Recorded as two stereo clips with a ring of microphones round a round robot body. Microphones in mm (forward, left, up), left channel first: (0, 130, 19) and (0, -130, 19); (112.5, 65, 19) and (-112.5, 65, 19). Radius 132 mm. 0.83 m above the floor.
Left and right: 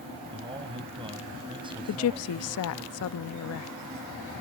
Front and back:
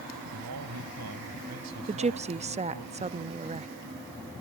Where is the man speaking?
160° right.